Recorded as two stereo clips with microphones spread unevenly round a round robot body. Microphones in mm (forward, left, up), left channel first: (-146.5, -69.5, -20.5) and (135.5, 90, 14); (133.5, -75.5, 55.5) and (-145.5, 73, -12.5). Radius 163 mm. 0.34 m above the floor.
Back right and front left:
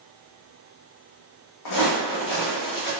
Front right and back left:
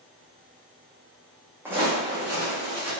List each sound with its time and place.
1.6 s footsteps: 120° right, 1.0 m